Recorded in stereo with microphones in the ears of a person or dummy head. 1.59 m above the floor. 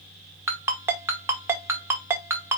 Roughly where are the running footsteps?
No running footsteps in this recording.